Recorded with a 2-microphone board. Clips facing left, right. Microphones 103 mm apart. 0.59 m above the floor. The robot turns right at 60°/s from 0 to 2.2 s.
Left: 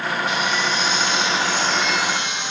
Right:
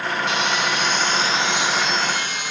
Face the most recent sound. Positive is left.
turn(degrees=20)